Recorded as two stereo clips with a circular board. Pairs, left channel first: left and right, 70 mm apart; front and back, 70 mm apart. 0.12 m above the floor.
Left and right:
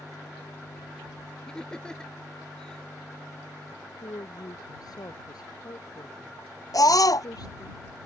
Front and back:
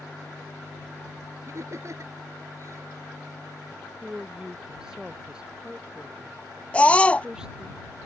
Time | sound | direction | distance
1.5 | laughter | 165° left | ?
4.0 | a woman speaking | 100° left | ?
6.7 | a scream | 70° left | ?